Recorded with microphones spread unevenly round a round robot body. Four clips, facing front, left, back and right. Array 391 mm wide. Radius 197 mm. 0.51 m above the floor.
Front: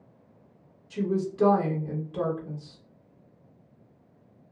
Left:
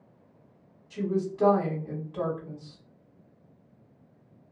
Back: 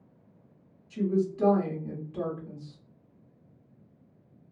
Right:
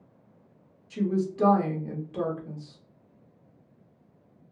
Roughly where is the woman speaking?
Right.